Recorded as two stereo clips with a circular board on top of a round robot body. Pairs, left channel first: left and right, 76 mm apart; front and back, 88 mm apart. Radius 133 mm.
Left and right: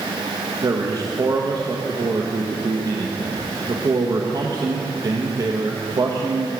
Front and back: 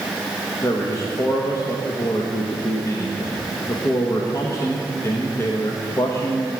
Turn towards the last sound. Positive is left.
turn(degrees=-55)